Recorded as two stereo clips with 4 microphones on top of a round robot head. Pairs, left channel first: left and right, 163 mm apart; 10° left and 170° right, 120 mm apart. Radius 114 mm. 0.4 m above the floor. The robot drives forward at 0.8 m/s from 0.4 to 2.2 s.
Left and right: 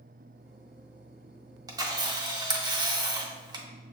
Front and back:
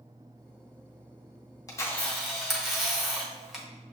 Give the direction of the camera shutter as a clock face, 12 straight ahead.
1 o'clock.